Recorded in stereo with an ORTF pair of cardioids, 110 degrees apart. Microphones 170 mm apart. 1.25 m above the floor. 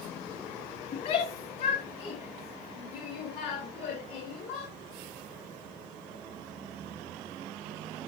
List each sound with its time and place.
0.9 s a shout: 55° left, 1.9 m; by 4.7 s 80° left, 4.5 m